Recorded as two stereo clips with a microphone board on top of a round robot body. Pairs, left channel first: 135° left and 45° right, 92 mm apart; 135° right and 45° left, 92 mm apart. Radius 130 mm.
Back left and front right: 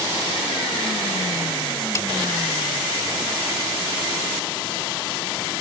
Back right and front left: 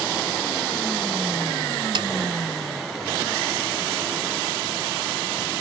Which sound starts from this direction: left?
A snare drum, at 1.9 s.